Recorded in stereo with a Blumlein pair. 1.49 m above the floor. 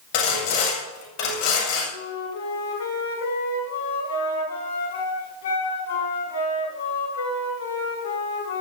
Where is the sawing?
45° left, 8 m.